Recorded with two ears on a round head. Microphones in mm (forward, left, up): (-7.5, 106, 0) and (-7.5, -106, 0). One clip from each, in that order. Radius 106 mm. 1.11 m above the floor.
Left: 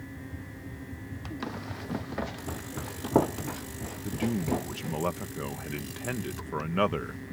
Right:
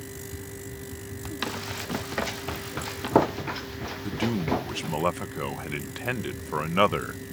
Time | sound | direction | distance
1.4 | running footsteps | 75° right (ahead or behind) | ?
4.0 | a man speaking | 30° right (ahead or behind) | ?